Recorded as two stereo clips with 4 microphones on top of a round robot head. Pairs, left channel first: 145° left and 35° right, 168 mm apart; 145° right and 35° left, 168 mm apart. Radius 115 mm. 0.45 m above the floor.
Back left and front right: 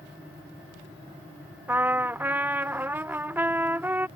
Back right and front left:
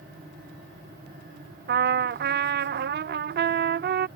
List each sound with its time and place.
1.7 s a trumpet: 45° left